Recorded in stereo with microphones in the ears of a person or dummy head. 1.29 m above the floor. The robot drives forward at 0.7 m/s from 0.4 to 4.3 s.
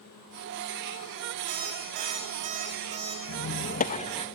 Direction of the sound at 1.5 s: 45° right (ahead or behind).